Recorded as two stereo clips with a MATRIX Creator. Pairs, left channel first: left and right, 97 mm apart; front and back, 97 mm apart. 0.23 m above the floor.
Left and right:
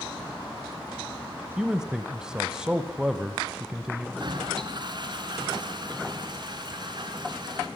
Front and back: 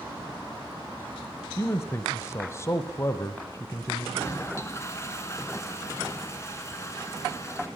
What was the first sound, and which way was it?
A man speaking, 15° right.